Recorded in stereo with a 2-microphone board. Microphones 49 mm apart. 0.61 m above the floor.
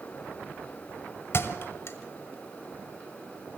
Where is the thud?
60° left (ahead or behind), 1.4 m.